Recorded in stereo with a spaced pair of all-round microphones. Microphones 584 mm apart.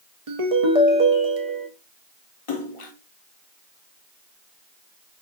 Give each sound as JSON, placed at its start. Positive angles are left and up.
{"t": 0.3, "sound": "a ringtone", "side_deg": -70, "distance_m": 0.8}
{"t": 2.5, "sound": "a splash", "side_deg": 60, "distance_m": 0.7}